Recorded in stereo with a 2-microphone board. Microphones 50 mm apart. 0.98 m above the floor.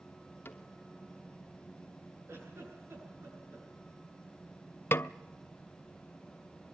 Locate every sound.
0.5 s a cupboard door: 45° left (ahead or behind), 2.5 m
2.3 s a giggle: 50° right (ahead or behind), 9.5 m
4.9 s a snare drum: 50° left (ahead or behind), 0.6 m